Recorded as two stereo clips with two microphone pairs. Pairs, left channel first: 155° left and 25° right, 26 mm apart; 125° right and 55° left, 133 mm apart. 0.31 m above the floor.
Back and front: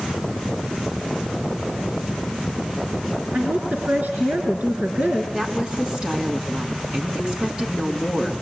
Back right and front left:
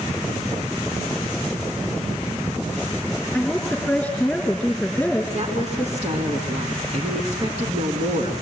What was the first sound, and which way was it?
A woman speaking, 40° right.